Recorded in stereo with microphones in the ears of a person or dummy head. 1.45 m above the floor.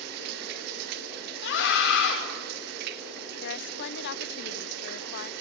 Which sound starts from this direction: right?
Running water, at 0.0 s.